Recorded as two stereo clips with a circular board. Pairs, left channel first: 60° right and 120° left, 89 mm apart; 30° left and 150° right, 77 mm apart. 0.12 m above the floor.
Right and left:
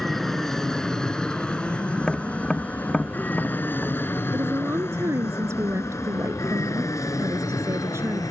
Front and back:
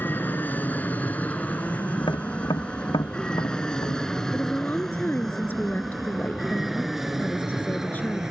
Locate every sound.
0.0 s an aircraft: 25° left; by 8.3 s 70° right
2.0 s tapping: 20° left
4.3 s a woman speaking: 85° left